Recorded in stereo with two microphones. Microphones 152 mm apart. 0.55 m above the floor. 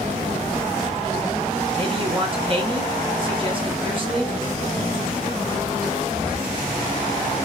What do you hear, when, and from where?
1.8 s a man speaking: 35° right (ahead or behind), 0.9 m